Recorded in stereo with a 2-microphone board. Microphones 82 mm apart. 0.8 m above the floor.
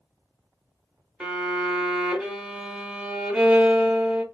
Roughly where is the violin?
Centre.